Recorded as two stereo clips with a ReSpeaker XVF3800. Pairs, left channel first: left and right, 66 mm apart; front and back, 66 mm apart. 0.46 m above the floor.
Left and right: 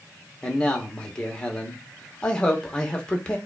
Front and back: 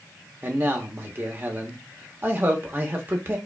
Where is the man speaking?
155° left, 0.9 m.